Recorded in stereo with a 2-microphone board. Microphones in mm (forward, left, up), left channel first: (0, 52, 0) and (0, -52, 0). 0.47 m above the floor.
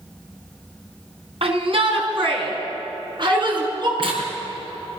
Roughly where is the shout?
Right.